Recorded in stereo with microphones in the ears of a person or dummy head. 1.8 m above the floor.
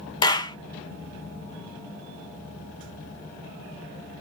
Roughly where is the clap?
Left.